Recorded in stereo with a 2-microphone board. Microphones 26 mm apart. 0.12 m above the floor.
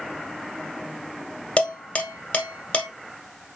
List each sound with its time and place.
1.6 s dishes clattering: 45° left (ahead or behind), 1.6 m